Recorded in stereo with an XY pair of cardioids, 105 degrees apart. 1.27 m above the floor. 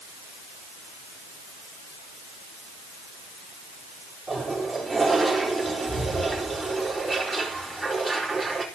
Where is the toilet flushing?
15° right, 5 m.